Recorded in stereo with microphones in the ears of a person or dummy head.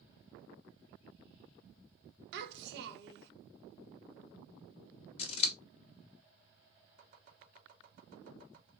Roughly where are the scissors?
Left.